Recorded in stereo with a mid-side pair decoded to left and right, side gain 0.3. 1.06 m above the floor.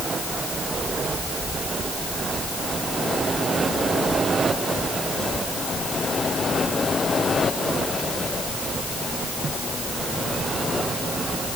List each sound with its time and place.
Only background noise.